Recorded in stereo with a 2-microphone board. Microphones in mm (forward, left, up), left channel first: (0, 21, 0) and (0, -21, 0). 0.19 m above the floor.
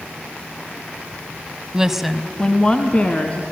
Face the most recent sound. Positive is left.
turn(degrees=30)  # may be behind; listen again after turning